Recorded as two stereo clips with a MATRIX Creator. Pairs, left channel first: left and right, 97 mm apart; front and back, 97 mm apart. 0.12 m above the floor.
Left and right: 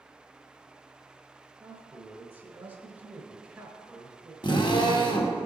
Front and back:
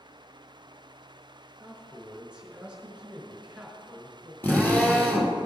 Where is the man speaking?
115° right, 1.2 m.